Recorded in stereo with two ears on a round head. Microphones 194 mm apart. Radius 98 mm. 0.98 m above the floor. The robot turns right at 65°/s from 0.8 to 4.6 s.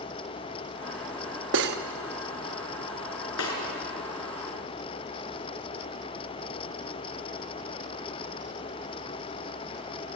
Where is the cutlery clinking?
60° right (ahead or behind), 1.0 m; by 1.8 s 45° right (ahead or behind), 1.0 m.